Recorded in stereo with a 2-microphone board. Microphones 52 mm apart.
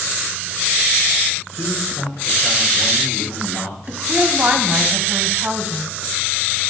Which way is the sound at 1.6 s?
75° left (ahead or behind).